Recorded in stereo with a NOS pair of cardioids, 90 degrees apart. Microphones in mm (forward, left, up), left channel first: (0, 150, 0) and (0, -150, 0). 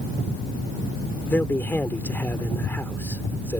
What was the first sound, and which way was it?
A man speaking, 5° left.